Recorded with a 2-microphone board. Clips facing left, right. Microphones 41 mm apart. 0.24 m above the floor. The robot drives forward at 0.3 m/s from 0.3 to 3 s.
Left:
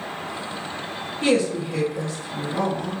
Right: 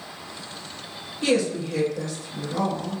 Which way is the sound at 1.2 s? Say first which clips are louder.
Left 2 dB; 25° left (ahead or behind).